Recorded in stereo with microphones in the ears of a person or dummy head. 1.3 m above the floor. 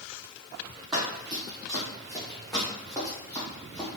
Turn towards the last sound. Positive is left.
turn(degrees=5)  # may be behind; listen again after turning